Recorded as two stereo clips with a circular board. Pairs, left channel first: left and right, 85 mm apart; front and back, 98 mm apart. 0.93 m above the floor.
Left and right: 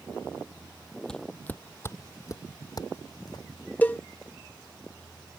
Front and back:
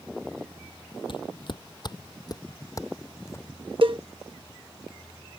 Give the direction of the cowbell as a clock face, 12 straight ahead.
7 o'clock.